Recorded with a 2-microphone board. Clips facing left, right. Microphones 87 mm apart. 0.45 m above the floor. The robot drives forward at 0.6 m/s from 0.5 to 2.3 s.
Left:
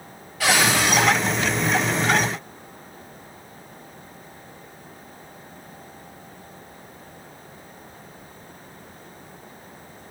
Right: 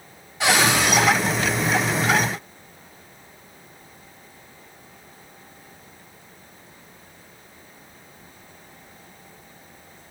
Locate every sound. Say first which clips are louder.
0.4 s a cupboard door: right 1 dB; 25° right (ahead or behind), 1.6 m; by 1.0 s 20° right (ahead or behind), 1.9 m